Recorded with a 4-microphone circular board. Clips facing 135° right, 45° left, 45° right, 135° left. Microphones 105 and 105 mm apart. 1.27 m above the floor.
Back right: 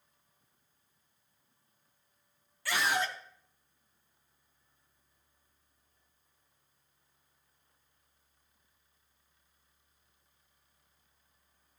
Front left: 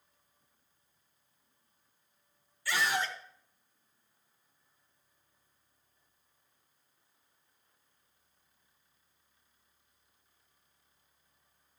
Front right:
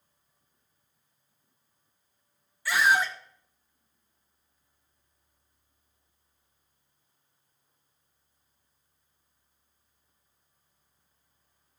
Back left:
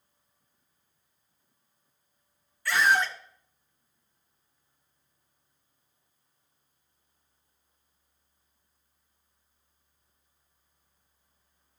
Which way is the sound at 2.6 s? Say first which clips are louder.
Back right 1 dB, even; 130° right.